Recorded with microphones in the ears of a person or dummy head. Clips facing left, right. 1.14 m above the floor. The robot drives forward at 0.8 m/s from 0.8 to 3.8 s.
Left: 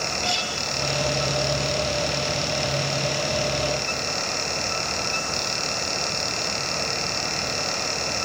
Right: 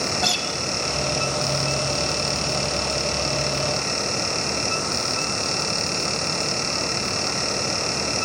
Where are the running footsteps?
I don't hear running footsteps.